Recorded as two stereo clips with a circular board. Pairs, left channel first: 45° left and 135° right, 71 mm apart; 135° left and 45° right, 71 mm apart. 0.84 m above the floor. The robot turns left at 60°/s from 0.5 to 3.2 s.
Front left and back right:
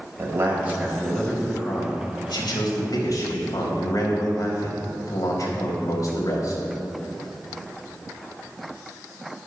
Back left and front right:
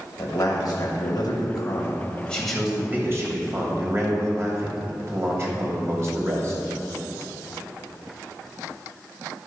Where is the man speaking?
165° left, 3.5 m; by 6.6 s 5° left, 3.5 m.